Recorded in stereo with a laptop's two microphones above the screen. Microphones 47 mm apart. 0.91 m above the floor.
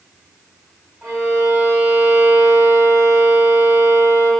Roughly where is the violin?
Centre.